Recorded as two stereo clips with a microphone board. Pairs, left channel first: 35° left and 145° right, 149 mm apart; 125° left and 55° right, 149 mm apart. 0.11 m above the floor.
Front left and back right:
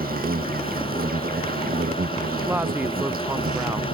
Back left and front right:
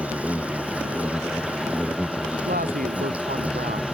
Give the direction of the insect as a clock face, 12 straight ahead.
5 o'clock.